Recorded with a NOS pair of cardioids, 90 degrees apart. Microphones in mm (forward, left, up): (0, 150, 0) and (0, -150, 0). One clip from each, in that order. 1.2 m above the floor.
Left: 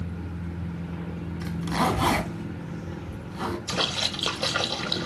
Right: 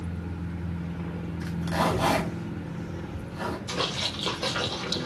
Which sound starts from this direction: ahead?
A zipper, at 1.4 s.